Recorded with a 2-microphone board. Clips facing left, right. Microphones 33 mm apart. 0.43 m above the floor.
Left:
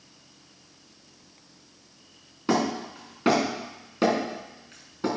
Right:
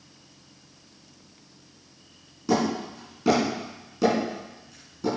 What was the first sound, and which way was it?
Hammering, 45° left (ahead or behind).